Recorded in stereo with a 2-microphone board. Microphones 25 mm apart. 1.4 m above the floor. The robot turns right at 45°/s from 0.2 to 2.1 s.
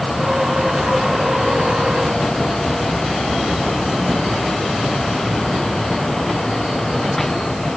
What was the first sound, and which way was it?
Only background noise.